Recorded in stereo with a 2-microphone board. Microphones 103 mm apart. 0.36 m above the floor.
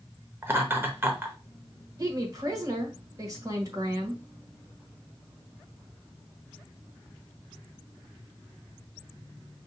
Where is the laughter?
20° right (ahead or behind), 0.8 m.